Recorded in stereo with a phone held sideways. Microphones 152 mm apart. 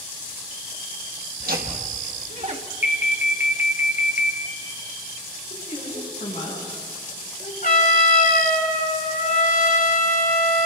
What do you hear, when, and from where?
1.4 s laughter: 80° right, 1.5 m; by 2.6 s 45° right (ahead or behind), 1.6 m
2.8 s an alarm: 10° right (ahead or behind), 2 m
5.5 s a woman speaking: 50° left (ahead or behind), 9 m
7.6 s a trumpet: 65° left (ahead or behind), 2.5 m